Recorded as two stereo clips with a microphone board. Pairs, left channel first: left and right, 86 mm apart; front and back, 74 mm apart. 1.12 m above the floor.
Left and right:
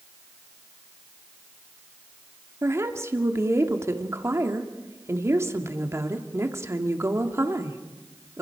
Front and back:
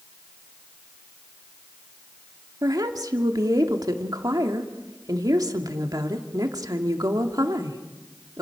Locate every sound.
2.6 s a woman speaking: 145° right, 1.9 m